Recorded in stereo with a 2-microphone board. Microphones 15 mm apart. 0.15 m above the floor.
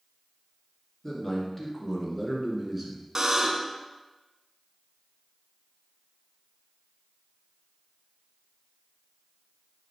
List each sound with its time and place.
1.0 s a man speaking: 25° left (ahead or behind), 1.7 m; by 3.0 s 20° right (ahead or behind), 1.5 m
3.1 s a buzzer: 30° right (ahead or behind), 0.7 m